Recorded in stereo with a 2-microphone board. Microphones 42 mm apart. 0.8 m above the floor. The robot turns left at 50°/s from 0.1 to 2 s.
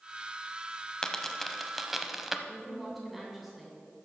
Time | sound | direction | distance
1.0 | a dropped coin | 15° left (ahead or behind) | 0.7 m
2.5 | a woman speaking | centre (ahead or behind) | 2.5 m